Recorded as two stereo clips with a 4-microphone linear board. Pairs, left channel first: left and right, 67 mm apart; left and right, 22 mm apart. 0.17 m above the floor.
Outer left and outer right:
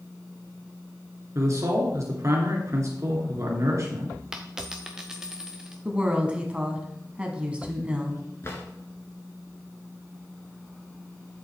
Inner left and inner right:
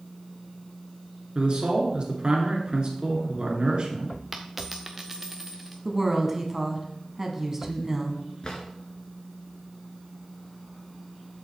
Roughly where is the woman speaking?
Centre.